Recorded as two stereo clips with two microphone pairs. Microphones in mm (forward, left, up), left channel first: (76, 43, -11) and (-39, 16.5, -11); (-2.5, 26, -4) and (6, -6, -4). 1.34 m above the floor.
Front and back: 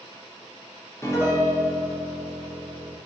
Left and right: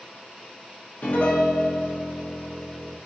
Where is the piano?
75° left, 0.8 m.